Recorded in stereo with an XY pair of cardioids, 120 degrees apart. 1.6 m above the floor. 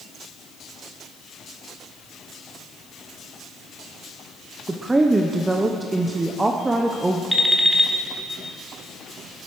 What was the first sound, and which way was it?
A woman speaking, 15° right.